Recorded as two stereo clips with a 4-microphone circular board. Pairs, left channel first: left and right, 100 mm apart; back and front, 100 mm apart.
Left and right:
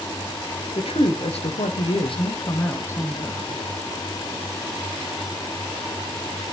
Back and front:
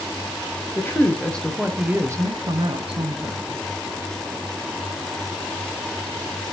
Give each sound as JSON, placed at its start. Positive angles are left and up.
{"t": 0.8, "sound": "a woman speaking", "azimuth_deg": 115, "distance_m": 1.4}